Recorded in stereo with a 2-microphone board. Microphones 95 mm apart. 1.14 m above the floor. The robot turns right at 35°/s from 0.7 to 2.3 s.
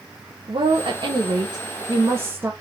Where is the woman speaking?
75° right, 1.1 m; by 2.5 s 20° right, 1.1 m.